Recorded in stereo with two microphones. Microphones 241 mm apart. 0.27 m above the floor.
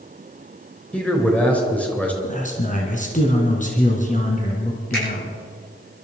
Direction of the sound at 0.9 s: 5° left (ahead or behind).